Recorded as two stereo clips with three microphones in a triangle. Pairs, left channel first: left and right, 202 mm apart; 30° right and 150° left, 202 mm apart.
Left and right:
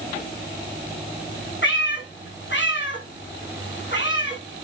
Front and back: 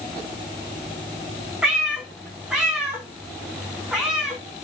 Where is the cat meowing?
65° left, 4.5 m.